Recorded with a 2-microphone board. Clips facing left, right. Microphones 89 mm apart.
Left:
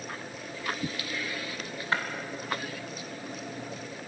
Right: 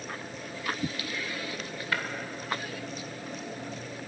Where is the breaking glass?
30° left (ahead or behind), 2.5 m.